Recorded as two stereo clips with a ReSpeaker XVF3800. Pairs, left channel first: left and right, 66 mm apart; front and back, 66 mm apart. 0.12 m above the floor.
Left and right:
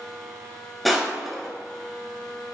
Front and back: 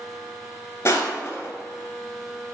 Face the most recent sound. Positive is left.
turn(degrees=0)